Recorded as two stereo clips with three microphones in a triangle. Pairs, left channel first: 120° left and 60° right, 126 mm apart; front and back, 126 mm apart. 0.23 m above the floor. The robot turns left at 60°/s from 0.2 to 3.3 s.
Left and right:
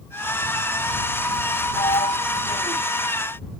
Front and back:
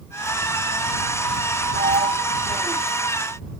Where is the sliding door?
175° left; by 2.8 s 105° left.